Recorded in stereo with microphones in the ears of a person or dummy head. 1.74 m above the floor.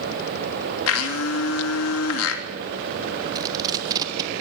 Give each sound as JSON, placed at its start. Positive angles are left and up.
{"t": 0.9, "sound": "a blender", "side_deg": 85, "distance_m": 3.0}
{"t": 3.4, "sound": "tape being pulled", "side_deg": -20, "distance_m": 1.2}